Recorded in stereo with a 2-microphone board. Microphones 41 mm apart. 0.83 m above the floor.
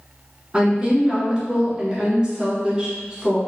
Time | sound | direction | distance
0.5 | a woman speaking | 20° right (ahead or behind) | 1.1 m